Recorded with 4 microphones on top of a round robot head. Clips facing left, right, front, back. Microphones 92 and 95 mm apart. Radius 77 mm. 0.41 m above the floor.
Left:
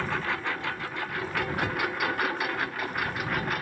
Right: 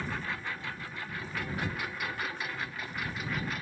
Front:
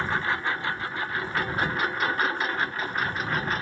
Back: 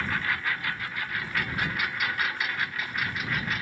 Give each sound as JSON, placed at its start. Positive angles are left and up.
{"t": 0.0, "sound": "a lawn mower", "azimuth_deg": 65}